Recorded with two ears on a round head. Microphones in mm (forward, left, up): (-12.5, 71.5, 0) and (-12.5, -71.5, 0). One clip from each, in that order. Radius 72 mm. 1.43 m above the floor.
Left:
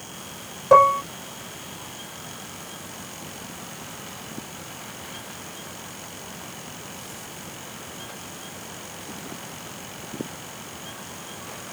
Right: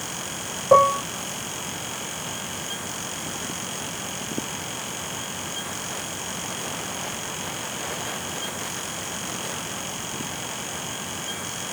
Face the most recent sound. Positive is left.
turn(degrees=70)  # may be behind; listen again after turning